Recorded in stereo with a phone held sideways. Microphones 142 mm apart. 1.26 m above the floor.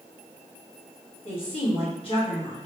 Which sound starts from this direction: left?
A woman speaking, at 1.2 s.